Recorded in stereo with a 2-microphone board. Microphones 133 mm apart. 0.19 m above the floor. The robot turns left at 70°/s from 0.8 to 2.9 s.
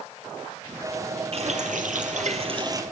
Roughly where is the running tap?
Ahead right.